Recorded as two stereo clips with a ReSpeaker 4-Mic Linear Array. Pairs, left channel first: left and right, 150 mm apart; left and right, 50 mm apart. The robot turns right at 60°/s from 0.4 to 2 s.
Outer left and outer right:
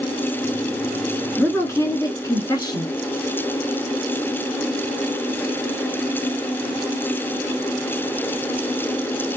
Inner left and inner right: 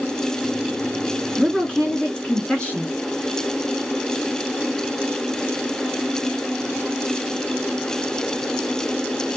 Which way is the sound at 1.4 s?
10° left (ahead or behind).